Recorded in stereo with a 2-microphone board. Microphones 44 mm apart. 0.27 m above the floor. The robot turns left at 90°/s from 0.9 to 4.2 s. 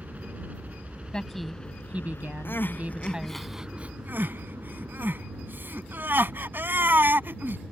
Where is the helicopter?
135° right; by 7.7 s 70° right.